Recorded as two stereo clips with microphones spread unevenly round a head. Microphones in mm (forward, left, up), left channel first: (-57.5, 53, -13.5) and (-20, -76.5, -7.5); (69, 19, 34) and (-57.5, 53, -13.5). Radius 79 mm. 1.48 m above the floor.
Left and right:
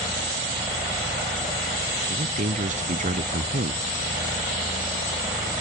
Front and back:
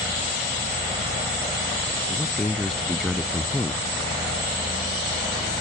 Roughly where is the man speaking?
Right.